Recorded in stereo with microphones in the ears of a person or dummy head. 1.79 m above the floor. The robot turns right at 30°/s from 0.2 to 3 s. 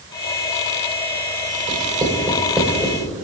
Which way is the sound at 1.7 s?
30° right (ahead or behind).